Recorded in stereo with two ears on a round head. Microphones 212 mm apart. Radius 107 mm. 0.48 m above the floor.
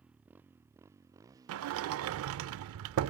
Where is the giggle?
No giggle in this recording.